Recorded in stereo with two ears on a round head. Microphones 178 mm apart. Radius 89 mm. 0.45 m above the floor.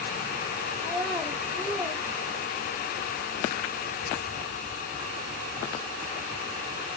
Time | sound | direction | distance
0.8 | a child speaking | 5° left (ahead or behind) | 0.8 m